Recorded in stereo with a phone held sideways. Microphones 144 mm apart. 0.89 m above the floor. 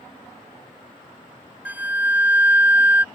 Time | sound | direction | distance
1.6 | a flute | 10° right (ahead or behind) | ?